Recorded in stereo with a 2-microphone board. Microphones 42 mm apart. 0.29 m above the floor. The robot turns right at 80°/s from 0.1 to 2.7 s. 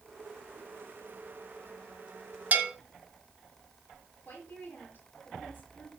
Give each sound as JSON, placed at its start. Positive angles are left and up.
{"t": 2.5, "sound": "a bell", "side_deg": -35, "distance_m": 1.6}
{"t": 4.2, "sound": "a woman speaking", "side_deg": 50, "distance_m": 6.0}